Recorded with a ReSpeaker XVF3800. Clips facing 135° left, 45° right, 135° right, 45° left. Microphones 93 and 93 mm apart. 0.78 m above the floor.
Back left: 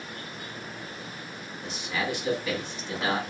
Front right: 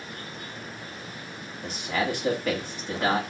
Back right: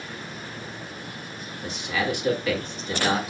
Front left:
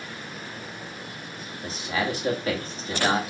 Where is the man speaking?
10° right, 1.7 m.